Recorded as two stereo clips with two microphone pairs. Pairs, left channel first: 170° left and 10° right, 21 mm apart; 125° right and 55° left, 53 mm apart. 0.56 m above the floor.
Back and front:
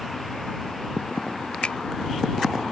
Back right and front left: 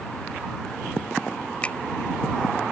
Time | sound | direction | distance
1.6 | a finger snap | 170° left | ?